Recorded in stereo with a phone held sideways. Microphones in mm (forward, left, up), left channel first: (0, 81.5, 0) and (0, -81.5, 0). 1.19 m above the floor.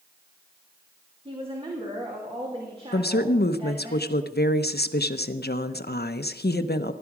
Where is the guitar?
I don't hear a guitar.